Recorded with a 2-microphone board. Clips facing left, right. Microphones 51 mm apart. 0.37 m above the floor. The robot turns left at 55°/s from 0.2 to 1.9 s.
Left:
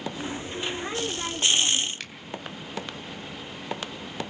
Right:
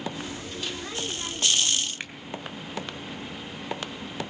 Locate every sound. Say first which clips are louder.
2.0 s a finger snap: right 2 dB; 20° right (ahead or behind), 2.5 m